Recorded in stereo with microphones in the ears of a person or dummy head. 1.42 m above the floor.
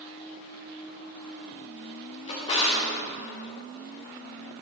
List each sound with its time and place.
2.3 s a drawer: 30° left (ahead or behind), 1.1 m